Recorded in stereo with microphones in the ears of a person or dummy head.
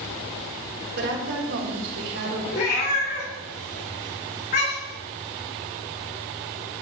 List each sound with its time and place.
1.0 s a woman speaking: 65° right (ahead or behind), 1.8 m; by 2.4 s 75° right (ahead or behind), 2.5 m
2.5 s a cat meowing: 50° left (ahead or behind), 2.5 m